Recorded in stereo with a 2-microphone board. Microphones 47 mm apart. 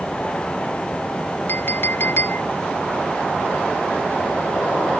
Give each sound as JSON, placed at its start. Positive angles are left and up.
{"t": 1.5, "sound": "a clink", "side_deg": 50}